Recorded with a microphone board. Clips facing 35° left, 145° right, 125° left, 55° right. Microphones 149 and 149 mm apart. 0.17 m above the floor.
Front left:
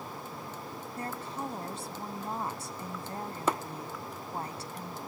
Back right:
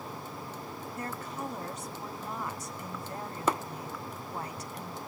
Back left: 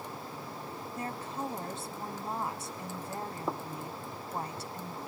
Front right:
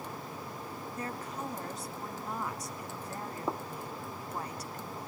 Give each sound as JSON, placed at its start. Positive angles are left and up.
{"t": 1.0, "sound": "a woman speaking", "azimuth_deg": 75, "distance_m": 1.3}